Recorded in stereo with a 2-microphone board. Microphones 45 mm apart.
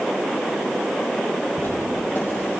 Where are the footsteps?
55° left (ahead or behind), 2 m; by 2.6 s 60° left (ahead or behind), 3 m.